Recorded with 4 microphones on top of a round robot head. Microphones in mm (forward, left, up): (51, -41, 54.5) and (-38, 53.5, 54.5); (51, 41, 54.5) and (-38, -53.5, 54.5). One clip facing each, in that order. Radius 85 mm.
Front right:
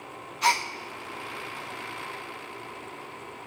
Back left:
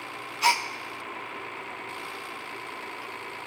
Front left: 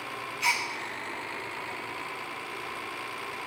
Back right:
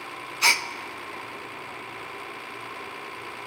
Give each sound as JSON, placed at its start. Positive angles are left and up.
{"t": 0.4, "sound": "a gasp", "azimuth_deg": -140, "distance_m": 0.5}